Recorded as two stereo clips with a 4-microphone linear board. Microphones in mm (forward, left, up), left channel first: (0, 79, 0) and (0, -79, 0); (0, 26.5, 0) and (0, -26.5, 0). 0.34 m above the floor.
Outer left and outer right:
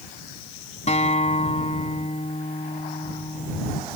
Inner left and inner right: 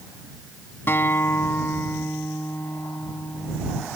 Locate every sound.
0.9 s a guitar: 40° left (ahead or behind)